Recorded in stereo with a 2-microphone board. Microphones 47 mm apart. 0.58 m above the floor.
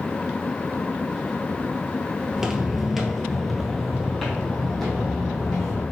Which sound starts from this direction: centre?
Footsteps, at 2.3 s.